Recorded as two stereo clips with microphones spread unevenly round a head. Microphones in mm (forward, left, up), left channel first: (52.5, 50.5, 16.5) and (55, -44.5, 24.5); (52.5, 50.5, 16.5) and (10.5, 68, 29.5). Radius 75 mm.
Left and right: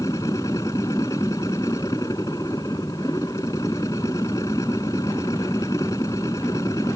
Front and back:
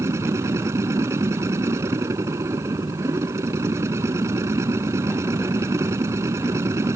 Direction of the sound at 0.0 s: 165° left.